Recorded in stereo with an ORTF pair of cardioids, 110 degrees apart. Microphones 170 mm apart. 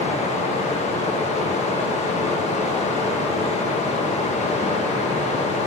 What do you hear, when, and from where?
0.0 s running water: 45° left, 1.1 m